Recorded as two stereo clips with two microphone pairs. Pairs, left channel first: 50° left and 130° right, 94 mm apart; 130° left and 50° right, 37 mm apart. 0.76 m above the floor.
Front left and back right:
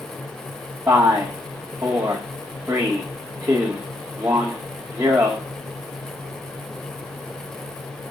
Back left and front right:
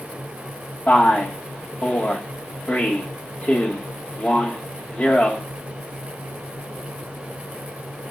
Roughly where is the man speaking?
Behind.